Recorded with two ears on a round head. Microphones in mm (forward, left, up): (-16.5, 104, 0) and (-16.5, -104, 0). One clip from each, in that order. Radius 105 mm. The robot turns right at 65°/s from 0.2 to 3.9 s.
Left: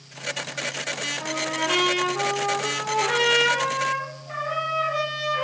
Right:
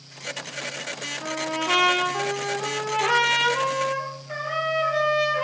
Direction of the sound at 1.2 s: Straight behind.